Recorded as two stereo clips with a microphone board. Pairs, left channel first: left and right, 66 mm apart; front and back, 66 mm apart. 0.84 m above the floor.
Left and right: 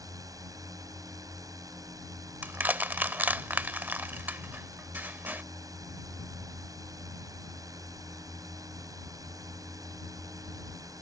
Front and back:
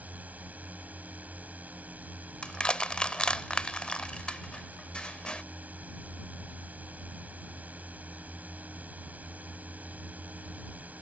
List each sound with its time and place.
0.0 s a drone: 115° right
2.4 s crushing: 60° right